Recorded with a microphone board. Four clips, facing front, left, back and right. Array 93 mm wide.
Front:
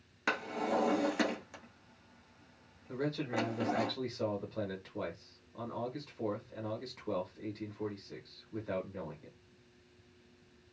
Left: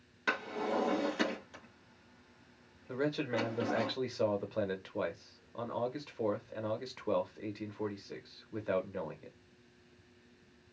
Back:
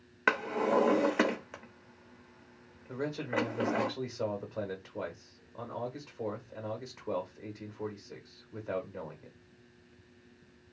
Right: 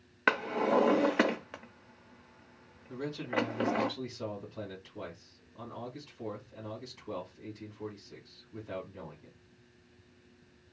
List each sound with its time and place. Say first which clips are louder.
0.3 s a drawer: right 6 dB, back 5 dB; 125° right, 0.7 m
2.9 s a man speaking: left 1 dB, back 2 dB; 105° left, 1.4 m